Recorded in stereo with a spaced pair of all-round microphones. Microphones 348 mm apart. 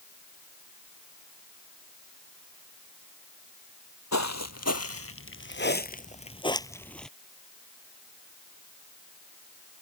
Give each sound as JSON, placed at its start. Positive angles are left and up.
{"t": 4.1, "sound": "footsteps", "side_deg": 50}